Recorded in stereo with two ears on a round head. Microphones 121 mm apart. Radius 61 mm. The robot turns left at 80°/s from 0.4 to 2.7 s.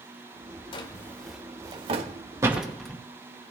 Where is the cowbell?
I don't hear a cowbell.